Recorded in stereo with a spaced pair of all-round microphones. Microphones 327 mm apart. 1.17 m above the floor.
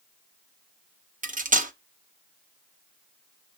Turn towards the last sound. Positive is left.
turn(degrees=-25)  # may be behind; listen again after turning